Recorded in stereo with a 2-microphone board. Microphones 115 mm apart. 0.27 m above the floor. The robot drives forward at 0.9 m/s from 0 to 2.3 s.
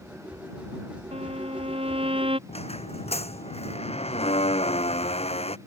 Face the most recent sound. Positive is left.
turn(degrees=65)  # may be behind; listen again after turning